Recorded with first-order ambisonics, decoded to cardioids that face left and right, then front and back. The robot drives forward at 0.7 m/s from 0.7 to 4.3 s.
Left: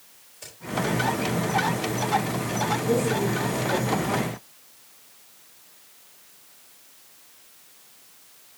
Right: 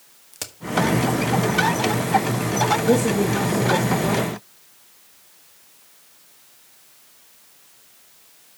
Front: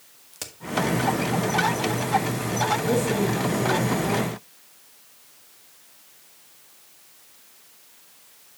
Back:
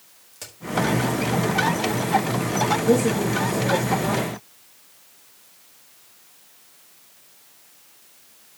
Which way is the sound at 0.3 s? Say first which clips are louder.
Right 10 dB, front 3 dB; 70° right.